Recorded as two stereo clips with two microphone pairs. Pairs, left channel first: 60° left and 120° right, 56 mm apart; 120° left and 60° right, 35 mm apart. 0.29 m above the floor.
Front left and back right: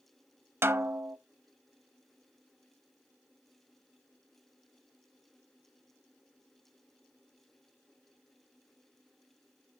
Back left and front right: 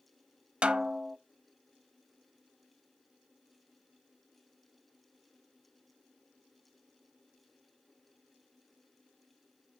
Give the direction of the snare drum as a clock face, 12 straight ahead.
3 o'clock.